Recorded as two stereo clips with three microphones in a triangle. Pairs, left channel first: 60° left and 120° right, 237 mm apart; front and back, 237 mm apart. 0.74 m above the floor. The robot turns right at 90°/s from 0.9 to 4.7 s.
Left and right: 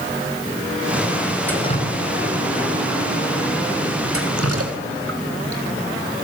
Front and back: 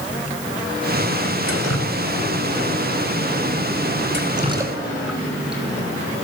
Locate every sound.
1.5 s dripping: 25° right, 3.5 m; by 5.6 s 95° right, 3.5 m